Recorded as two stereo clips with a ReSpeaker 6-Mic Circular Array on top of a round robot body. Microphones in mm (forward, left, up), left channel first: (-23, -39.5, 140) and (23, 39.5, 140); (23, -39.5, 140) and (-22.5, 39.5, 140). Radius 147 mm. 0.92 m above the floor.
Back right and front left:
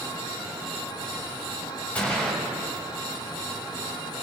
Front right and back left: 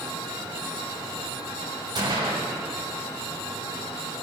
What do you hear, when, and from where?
1.9 s a gunshot: 165° left, 7 m